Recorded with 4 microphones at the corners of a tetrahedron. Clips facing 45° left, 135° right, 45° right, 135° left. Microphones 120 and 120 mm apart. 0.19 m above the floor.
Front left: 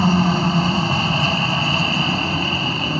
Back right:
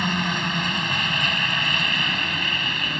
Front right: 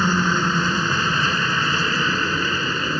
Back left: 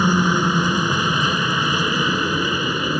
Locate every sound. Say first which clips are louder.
0.0 s a helicopter: front left 9 dB, back left 3 dB; 65° left